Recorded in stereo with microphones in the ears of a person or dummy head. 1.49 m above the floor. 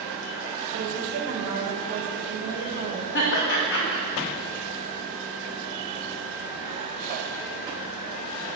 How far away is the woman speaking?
About 1.2 m.